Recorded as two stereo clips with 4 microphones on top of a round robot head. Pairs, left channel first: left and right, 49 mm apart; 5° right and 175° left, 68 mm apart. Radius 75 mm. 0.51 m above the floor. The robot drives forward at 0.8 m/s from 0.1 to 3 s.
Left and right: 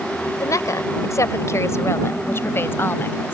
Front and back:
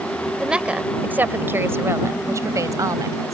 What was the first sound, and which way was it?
A woman speaking, 95° left.